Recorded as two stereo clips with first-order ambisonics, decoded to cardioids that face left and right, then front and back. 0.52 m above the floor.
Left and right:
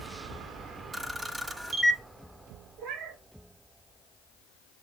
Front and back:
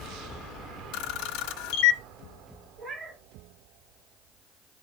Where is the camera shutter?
10° right, 1.2 m.